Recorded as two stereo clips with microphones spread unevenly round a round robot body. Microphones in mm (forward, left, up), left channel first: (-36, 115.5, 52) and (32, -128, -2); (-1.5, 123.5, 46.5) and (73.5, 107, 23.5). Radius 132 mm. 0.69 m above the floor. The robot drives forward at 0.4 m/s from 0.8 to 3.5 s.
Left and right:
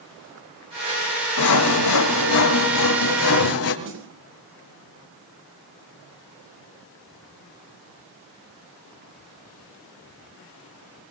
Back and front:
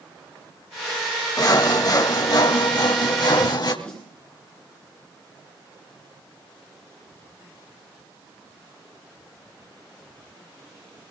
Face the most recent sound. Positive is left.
turn(degrees=-110)